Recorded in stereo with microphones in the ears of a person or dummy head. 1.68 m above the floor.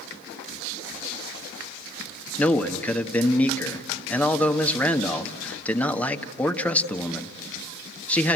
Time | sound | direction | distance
2.4 | a man speaking | 15° left (ahead or behind) | 1.4 m